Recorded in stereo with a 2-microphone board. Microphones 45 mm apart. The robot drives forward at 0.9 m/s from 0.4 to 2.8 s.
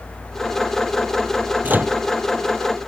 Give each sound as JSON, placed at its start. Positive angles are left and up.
{"t": 1.6, "sound": "a microwave", "side_deg": -40}